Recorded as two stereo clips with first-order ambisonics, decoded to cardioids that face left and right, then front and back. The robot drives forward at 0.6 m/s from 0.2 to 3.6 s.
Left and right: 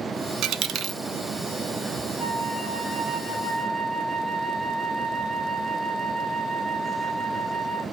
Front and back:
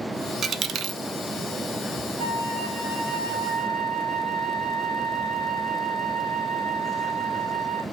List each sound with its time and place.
0.4 s a dropped coin: 120° right, 0.6 m; by 1.0 s 145° right, 0.8 m
2.2 s a flute: 170° right, 2.5 m; by 7.8 s 175° right, 3.5 m